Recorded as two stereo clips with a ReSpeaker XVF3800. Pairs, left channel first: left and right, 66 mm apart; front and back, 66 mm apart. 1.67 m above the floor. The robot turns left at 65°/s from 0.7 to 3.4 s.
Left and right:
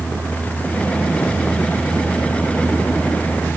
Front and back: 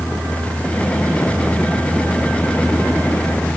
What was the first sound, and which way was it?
Only background noise.